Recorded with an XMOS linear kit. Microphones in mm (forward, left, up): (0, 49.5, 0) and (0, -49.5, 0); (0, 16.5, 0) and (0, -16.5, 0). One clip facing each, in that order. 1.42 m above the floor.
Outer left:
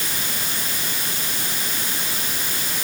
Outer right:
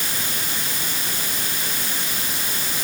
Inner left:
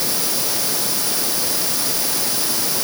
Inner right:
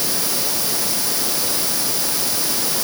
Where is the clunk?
I don't hear a clunk.